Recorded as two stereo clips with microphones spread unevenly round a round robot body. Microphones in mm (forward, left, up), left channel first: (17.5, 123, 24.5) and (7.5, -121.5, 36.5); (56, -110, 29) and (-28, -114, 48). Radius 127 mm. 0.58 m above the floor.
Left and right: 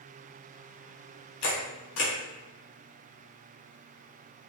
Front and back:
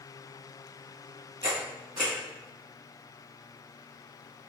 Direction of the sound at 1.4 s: 125° left.